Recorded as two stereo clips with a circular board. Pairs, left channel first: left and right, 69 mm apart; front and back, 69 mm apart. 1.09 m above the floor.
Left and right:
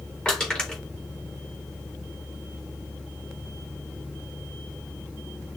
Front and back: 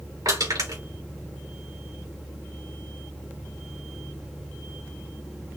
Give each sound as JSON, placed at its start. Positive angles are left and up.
{"t": 0.2, "sound": "crushing", "azimuth_deg": 165, "distance_m": 3.5}